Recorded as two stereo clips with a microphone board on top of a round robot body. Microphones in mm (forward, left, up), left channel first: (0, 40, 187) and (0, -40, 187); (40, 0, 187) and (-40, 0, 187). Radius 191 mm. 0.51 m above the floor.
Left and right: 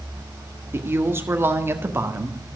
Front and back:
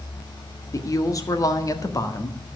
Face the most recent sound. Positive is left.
turn(degrees=-35)